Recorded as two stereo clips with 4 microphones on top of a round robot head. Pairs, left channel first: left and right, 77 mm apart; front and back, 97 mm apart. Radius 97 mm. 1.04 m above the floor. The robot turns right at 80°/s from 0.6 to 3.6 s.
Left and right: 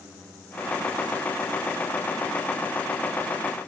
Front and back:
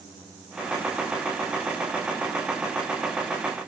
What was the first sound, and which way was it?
Only background noise.